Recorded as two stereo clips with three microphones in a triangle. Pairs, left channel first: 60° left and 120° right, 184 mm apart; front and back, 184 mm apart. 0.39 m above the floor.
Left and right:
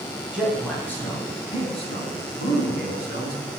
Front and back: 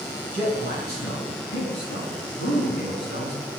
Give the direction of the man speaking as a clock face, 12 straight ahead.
1 o'clock.